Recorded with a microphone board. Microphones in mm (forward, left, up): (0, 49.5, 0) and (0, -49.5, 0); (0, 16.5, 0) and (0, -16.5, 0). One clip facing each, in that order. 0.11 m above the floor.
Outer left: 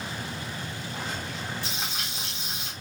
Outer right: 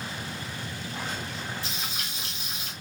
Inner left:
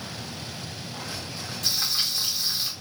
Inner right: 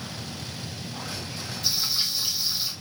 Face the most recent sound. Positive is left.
turn(degrees=65)  # may be behind; listen again after turning